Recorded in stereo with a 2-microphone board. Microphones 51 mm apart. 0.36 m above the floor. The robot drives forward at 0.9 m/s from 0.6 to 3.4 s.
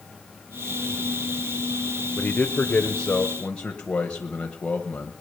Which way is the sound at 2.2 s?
30° left (ahead or behind).